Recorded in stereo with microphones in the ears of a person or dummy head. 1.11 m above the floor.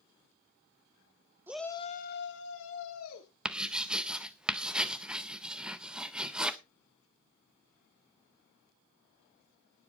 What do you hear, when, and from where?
1.5 s a shout: 10° right (ahead or behind), 0.8 m; by 3.3 s 75° left (ahead or behind), 2.5 m
3.5 s writing: 5° right (ahead or behind), 0.5 m